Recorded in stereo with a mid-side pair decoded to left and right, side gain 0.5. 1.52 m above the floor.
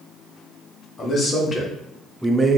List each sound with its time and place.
1.0 s a man speaking: 45° left, 1.1 m; by 2.6 s 30° right, 0.5 m